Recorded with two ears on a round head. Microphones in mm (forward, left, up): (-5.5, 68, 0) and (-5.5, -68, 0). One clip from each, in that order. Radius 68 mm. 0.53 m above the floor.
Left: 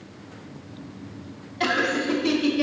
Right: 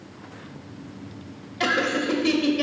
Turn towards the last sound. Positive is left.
turn(degrees=-25)  # may be behind; listen again after turning